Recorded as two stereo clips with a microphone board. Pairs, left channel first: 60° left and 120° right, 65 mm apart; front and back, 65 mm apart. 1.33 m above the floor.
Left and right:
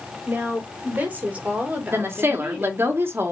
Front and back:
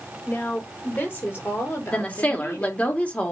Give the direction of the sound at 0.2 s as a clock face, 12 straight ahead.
2 o'clock.